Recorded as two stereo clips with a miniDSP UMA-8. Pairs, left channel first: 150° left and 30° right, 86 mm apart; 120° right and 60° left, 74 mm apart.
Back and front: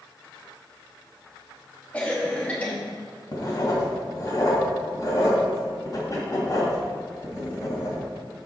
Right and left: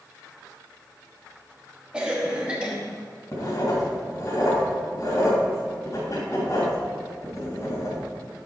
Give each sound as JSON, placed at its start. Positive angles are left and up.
{"t": 1.9, "sound": "a cough", "azimuth_deg": 110, "distance_m": 1.0}
{"t": 3.3, "sound": "writing", "azimuth_deg": -165, "distance_m": 2.0}